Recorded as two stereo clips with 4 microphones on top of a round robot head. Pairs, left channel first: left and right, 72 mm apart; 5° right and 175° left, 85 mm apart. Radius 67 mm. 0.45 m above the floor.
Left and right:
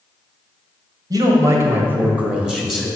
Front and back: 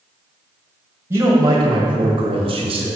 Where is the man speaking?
120° right, 1.9 m; by 2.9 s straight behind, 2.5 m.